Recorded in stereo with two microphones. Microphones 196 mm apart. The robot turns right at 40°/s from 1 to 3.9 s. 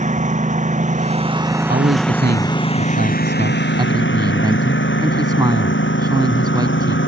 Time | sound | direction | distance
0.0 | a lawn mower | 40° right | ?
1.5 | a man speaking | 120° right | ?